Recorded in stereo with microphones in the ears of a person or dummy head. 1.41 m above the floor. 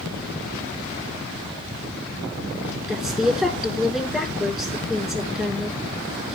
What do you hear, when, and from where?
2.9 s a woman speaking: centre (ahead or behind), 3 m